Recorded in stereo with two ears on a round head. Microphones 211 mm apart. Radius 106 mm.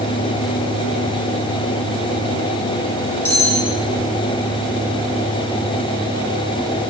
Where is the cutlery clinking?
10° left (ahead or behind), 2.5 m.